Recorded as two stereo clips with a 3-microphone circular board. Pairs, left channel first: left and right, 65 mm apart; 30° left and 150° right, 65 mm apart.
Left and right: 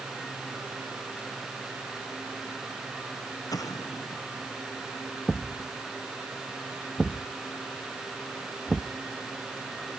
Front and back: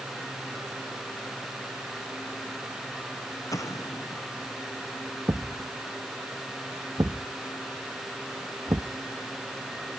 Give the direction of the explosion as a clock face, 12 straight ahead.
10 o'clock.